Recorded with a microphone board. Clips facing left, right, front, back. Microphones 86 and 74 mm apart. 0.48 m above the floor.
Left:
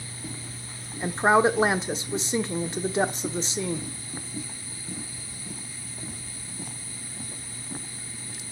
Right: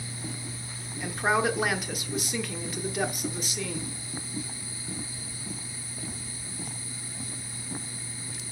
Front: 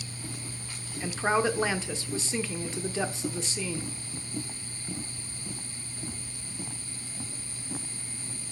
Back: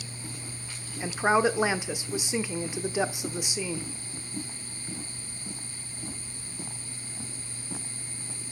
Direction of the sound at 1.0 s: 115° left.